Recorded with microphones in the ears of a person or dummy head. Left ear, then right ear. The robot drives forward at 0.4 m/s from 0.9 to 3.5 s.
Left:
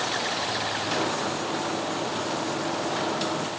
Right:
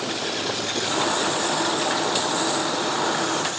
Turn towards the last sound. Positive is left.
No sound to turn to.